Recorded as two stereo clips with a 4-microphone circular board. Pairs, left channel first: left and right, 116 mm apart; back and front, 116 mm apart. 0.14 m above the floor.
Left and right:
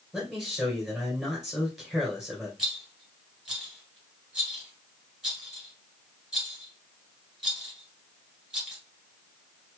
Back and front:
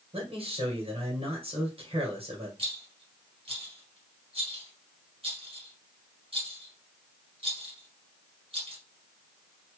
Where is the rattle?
5° right, 2.5 m.